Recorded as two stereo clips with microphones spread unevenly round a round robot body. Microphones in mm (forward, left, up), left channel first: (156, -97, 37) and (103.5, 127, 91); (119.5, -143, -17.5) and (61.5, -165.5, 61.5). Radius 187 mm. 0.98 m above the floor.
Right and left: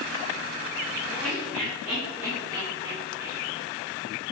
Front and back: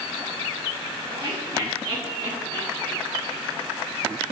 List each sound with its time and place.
1.1 s laughter: 160° right, 5 m; by 3.7 s straight behind, 6 m